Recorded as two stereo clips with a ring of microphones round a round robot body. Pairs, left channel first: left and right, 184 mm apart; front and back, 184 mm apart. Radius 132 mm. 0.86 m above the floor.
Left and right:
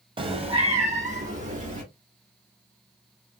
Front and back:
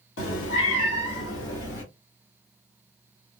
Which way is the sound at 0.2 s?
25° right.